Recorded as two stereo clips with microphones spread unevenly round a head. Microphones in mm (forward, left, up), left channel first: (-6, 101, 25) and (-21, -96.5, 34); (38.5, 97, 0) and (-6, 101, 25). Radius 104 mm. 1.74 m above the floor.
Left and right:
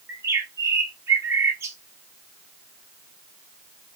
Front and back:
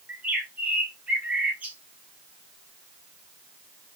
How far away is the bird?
About 1.0 m.